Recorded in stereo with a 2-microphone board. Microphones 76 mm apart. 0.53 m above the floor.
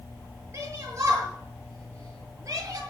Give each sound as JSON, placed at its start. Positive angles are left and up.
{"t": 0.5, "sound": "a shout", "side_deg": -40, "distance_m": 9.0}